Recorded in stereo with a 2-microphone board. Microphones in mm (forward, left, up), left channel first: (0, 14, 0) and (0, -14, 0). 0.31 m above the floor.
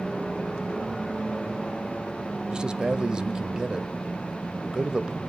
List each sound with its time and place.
2.5 s a man speaking: 30° right (ahead or behind), 1.2 m